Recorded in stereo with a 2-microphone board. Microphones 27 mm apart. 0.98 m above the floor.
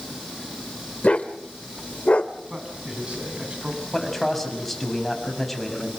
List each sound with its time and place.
1.0 s a dog barking: 50° left (ahead or behind), 1.5 m
2.5 s a man speaking: 40° right (ahead or behind), 7 m
3.9 s a man speaking: 10° left (ahead or behind), 6.5 m